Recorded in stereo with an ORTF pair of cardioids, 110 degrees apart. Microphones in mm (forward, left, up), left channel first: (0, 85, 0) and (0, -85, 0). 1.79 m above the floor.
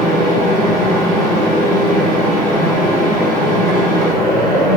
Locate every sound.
0.0 s a fan: 50° left, 2 m